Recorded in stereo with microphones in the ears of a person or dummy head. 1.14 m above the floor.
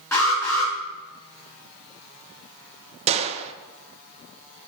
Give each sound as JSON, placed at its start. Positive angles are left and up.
{"t": 0.1, "sound": "an alarm", "side_deg": 10, "distance_m": 6.0}
{"t": 3.1, "sound": "a gunshot", "side_deg": -30, "distance_m": 0.7}